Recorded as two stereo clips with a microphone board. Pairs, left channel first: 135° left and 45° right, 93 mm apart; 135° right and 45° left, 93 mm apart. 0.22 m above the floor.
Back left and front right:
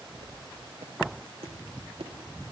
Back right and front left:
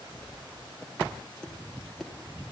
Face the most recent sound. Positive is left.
turn(degrees=-50)